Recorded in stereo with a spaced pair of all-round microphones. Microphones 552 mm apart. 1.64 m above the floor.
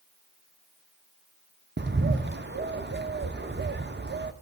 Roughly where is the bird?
Right.